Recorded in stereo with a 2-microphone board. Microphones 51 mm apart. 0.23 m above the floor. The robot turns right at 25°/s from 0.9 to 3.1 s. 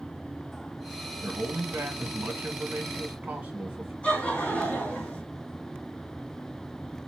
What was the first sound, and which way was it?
A man speaking, 85° right.